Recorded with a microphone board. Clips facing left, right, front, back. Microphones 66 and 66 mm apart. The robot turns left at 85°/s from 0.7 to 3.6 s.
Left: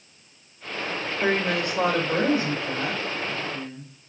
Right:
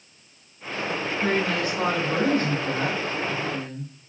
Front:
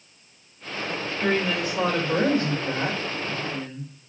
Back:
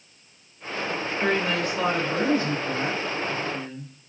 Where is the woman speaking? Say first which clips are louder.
Left 1 dB, even; 115° left, 1.9 m; by 3.9 s 90° right, 1.9 m.